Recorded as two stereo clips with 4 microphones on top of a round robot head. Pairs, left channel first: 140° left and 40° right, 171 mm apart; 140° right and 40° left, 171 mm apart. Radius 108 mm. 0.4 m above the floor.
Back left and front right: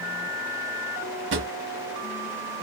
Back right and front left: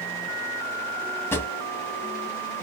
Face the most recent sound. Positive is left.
turn(degrees=-65)